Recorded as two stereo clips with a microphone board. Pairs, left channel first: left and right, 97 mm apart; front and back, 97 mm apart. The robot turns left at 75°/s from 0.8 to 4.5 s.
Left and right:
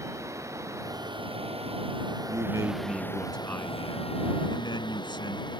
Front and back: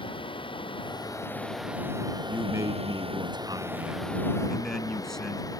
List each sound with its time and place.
0.0 s running water: 30° right; by 5.6 s 50° left
2.3 s a man speaking: 110° right; by 5.5 s 85° left